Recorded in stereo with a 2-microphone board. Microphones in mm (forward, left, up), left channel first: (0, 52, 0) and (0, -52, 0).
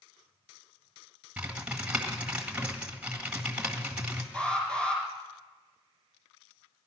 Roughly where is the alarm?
Centre.